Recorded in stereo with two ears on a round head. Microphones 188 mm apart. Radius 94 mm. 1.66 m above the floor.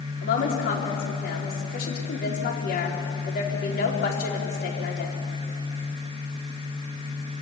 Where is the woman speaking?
50° left (ahead or behind), 4.5 m.